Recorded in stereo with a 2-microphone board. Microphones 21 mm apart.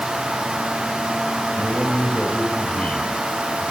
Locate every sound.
1.6 s a man speaking: 65° left (ahead or behind), 7.5 m